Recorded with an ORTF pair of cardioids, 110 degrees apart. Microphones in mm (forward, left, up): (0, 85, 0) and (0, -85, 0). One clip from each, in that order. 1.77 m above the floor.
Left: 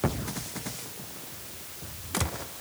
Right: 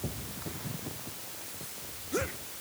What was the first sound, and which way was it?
Only background noise.